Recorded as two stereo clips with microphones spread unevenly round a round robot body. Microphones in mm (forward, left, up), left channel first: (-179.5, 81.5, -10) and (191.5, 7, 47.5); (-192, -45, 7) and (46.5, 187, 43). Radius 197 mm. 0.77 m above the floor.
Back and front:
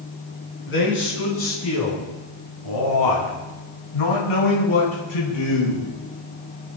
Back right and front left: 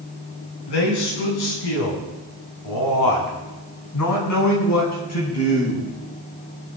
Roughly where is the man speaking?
Behind right.